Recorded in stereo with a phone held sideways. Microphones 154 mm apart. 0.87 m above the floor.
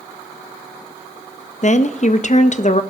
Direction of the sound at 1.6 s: 50° left (ahead or behind).